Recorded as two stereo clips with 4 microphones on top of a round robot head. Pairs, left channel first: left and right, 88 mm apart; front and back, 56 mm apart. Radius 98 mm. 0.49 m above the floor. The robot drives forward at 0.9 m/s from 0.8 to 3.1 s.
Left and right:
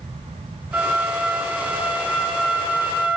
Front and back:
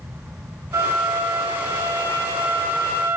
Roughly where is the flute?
Behind.